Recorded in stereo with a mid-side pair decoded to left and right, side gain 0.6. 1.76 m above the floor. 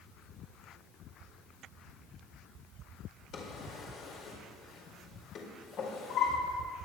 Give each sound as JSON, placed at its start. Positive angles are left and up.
{"t": 3.3, "sound": "a drawer", "azimuth_deg": 55, "distance_m": 4.5}